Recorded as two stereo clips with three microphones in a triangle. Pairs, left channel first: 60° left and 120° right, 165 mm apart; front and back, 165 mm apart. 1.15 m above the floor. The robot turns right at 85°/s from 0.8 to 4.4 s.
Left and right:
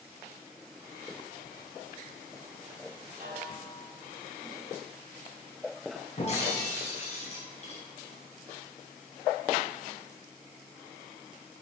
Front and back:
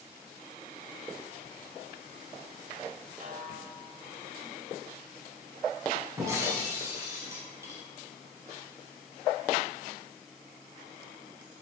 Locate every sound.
3.2 s a snare drum: 150° right, 3.5 m; by 3.9 s 90° right, 3.5 m
6.2 s breaking glass: 110° left, 5 m